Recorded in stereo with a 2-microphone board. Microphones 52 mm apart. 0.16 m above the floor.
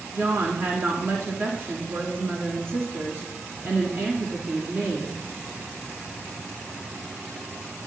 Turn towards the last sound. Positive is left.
turn(degrees=-45)  # may be behind; listen again after turning